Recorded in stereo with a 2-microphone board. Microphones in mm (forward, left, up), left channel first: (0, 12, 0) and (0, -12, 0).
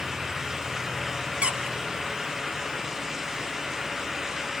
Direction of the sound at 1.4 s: 55° right (ahead or behind).